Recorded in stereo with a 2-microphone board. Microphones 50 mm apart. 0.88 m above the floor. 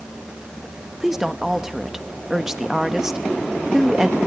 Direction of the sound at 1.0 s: 10° right (ahead or behind).